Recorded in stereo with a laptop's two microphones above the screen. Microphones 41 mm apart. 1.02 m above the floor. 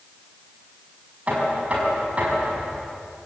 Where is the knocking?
35° right (ahead or behind), 5 m.